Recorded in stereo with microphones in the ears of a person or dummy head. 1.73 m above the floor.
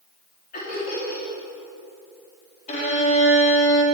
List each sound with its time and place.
0.5 s laughter: 45° left (ahead or behind), 4 m
2.7 s a violin: 45° left (ahead or behind), 2 m